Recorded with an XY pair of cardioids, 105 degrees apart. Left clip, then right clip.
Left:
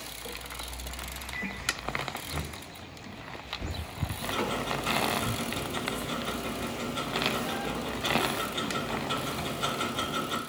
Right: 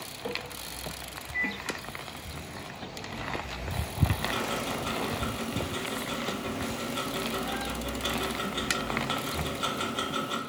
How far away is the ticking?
About 2.5 m.